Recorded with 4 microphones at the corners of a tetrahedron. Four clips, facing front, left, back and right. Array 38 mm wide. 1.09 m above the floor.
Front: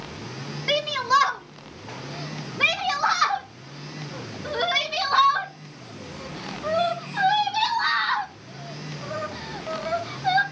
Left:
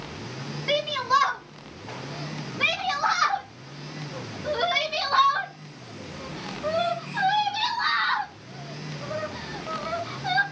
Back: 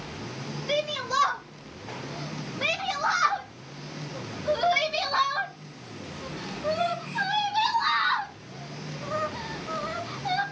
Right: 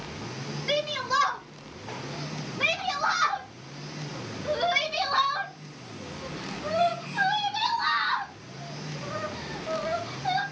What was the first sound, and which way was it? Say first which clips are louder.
A shout: left 4 dB, front 6 dB; 20° left.